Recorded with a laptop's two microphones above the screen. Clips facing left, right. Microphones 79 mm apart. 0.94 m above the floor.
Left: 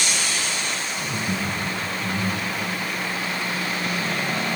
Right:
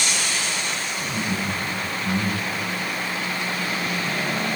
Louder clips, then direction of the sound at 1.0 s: Right 1 dB; 80° left.